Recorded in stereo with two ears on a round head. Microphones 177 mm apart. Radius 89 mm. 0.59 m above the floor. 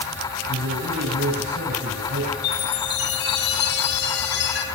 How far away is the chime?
About 4 m.